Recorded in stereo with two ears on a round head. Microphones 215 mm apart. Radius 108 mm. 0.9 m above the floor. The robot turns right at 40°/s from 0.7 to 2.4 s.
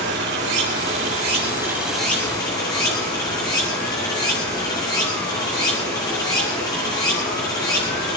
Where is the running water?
50° right, 6 m; by 8.2 s 20° left, 6 m.